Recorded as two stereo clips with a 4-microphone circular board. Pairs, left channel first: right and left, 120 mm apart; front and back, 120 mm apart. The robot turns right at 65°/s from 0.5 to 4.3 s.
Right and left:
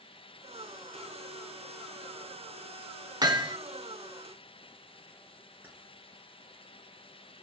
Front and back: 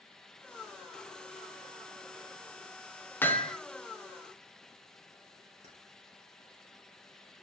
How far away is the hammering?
About 1.0 m.